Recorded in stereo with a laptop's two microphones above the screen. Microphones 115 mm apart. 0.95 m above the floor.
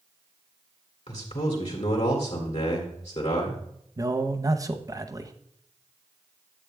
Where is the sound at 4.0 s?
30° right (ahead or behind), 0.8 m.